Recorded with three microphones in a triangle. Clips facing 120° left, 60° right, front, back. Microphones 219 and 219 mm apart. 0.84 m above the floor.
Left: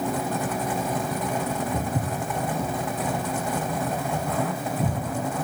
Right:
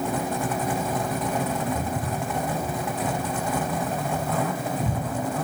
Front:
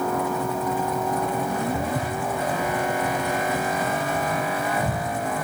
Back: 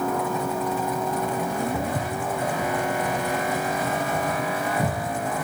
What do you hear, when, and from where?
1.7 s footsteps: 100° left, 1.1 m; by 5.0 s 155° left, 4 m